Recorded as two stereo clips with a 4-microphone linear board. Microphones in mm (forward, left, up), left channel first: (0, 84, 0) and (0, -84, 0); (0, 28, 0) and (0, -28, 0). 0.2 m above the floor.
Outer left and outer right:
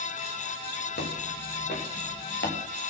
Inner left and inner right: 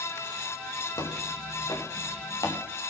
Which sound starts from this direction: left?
Footsteps, at 1.0 s.